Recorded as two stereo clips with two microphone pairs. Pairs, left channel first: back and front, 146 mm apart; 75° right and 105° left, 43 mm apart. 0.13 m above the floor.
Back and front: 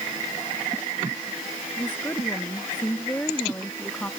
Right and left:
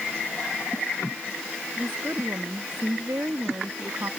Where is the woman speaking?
105° left; by 4.1 s 100° left.